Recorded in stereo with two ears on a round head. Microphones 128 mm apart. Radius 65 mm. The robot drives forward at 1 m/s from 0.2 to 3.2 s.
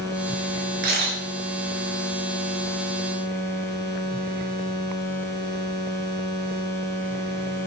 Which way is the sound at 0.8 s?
80° right.